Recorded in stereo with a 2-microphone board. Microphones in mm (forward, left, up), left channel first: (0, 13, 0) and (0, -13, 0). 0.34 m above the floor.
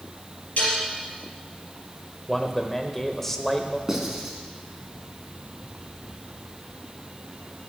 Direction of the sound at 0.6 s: 75° left (ahead or behind).